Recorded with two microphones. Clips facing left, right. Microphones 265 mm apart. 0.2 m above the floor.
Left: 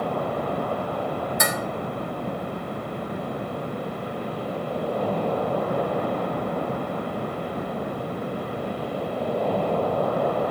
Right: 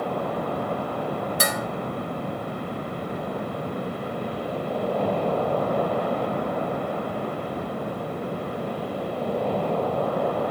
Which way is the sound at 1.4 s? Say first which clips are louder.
Even; 35° right (ahead or behind).